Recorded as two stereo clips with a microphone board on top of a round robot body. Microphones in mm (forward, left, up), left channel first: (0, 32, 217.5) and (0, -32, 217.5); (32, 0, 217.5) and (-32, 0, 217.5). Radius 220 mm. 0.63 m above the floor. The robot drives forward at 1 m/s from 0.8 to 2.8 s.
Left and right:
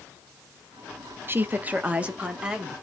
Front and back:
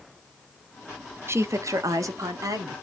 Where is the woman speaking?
140° right, 0.9 m; by 2.7 s 165° right, 2 m.